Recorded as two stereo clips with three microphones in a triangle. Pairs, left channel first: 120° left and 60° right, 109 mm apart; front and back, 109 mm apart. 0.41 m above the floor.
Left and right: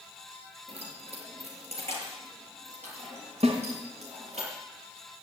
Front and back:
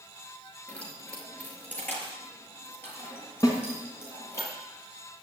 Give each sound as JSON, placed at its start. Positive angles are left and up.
{"t": 0.7, "sound": "keys jangling", "azimuth_deg": -80, "distance_m": 4.0}
{"t": 3.4, "sound": "a snare drum", "azimuth_deg": -55, "distance_m": 3.0}